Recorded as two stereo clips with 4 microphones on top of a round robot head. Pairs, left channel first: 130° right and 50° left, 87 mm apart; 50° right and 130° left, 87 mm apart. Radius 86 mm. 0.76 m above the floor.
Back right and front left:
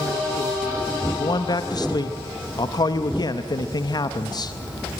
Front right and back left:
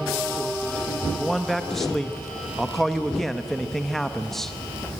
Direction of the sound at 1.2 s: 135° right.